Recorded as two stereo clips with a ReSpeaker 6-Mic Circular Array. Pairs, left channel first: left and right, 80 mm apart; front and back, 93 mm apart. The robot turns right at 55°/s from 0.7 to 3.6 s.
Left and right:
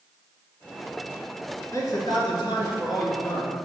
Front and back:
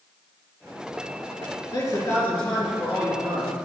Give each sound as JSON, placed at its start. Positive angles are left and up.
{"t": 1.7, "sound": "a man speaking", "azimuth_deg": 40, "distance_m": 3.5}